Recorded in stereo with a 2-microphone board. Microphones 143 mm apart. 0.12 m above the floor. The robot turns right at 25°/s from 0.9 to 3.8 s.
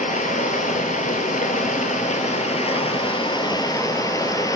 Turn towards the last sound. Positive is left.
turn(degrees=150)